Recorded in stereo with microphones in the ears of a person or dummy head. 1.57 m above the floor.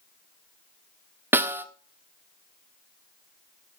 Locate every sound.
1.3 s a snare drum: 10° right (ahead or behind), 0.8 m